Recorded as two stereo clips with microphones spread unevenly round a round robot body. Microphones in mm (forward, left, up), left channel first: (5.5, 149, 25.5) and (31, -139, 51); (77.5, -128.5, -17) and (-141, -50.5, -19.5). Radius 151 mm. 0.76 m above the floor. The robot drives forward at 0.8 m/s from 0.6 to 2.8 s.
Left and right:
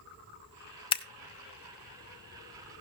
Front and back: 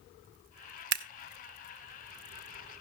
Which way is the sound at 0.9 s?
155° left.